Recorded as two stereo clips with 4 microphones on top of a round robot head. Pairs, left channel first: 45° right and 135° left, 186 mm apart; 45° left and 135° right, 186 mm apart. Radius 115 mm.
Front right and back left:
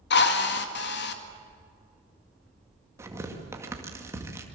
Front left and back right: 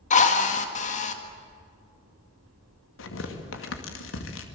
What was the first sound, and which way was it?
A drill, 10° right.